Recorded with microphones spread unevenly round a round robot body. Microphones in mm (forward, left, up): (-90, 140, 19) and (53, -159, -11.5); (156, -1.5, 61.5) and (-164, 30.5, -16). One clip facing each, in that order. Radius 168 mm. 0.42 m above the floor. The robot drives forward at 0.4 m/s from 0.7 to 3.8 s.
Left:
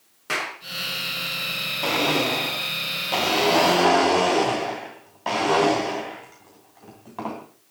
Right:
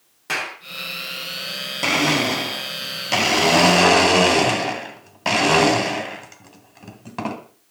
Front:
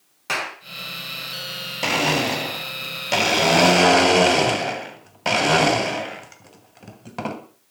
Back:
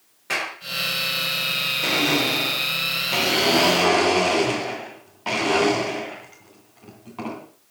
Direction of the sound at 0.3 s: 15° left.